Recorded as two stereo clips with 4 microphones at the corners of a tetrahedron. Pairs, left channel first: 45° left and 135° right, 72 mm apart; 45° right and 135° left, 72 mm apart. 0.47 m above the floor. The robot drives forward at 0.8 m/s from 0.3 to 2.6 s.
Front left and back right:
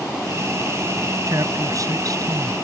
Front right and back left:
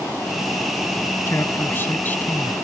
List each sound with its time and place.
1.3 s a man speaking: 95° right; by 2.5 s 110° right